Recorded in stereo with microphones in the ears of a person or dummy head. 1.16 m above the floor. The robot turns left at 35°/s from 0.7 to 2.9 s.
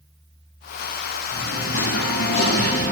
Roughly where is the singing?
Left.